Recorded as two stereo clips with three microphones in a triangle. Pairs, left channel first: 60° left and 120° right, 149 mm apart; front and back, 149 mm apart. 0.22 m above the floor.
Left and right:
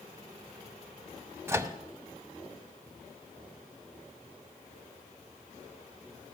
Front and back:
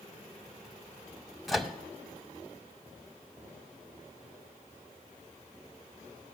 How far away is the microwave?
About 0.8 m.